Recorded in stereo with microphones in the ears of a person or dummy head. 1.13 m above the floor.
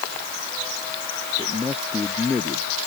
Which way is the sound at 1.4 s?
Centre (ahead or behind).